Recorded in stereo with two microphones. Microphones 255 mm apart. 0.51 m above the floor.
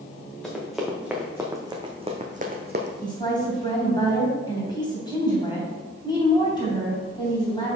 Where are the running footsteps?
Centre (ahead or behind), 1.9 m; by 2.9 s 45° right (ahead or behind), 1.1 m.